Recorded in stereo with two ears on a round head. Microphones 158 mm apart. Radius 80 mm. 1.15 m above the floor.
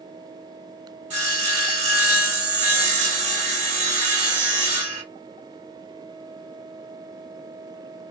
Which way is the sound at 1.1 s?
40° right (ahead or behind).